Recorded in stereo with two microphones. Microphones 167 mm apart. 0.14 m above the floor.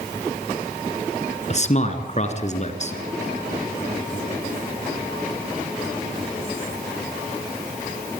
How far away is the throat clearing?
No throat clearing in this recording.